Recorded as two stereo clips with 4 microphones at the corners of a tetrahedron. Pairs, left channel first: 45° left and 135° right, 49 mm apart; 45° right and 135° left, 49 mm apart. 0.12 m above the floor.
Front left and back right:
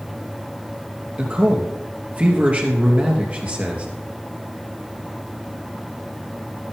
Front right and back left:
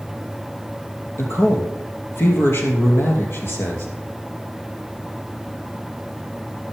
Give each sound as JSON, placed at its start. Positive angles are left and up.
{"t": 1.2, "sound": "a man speaking", "azimuth_deg": -75, "distance_m": 3.0}